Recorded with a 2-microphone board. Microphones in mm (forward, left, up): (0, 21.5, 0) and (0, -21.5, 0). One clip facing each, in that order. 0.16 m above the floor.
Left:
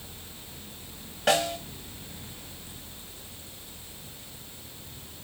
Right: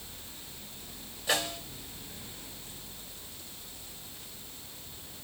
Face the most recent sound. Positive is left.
turn(degrees=70)  # may be behind; listen again after turning